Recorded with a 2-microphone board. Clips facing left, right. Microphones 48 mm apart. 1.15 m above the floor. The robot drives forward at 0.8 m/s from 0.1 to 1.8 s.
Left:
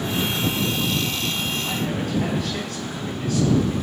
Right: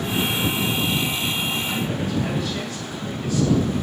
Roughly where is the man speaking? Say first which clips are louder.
Even; left.